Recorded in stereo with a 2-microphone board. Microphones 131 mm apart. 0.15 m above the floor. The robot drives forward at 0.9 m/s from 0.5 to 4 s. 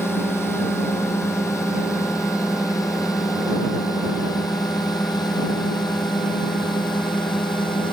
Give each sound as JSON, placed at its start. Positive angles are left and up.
{"t": 0.0, "sound": "a drone", "side_deg": 20}